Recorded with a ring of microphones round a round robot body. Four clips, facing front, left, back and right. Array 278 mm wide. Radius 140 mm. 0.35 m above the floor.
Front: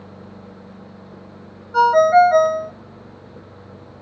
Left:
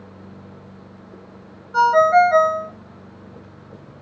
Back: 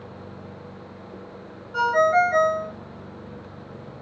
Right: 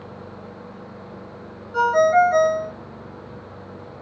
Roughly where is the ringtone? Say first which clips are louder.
Left 3 dB, front 7 dB; ahead left.